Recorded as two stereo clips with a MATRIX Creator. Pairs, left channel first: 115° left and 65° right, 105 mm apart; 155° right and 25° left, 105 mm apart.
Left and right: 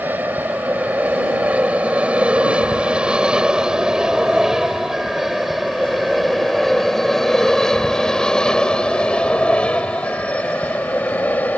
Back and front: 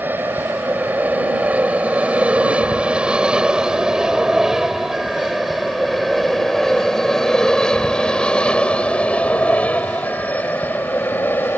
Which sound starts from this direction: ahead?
An aircraft, at 0.0 s.